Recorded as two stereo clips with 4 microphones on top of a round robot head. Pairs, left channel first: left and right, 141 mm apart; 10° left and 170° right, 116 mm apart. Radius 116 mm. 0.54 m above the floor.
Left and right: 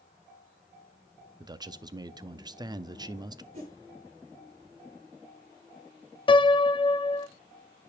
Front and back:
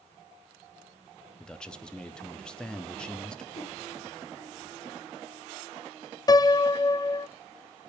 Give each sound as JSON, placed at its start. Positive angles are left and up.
{"t": 1.4, "sound": "a man speaking", "azimuth_deg": -65, "distance_m": 0.7}
{"t": 3.5, "sound": "a whoosh", "azimuth_deg": -50, "distance_m": 5.5}
{"t": 6.3, "sound": "a piano", "azimuth_deg": 55, "distance_m": 0.6}